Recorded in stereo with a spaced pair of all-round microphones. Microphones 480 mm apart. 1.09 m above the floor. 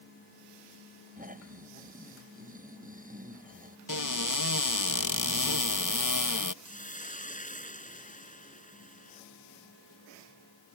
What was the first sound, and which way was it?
Snoring, 15° right (ahead or behind).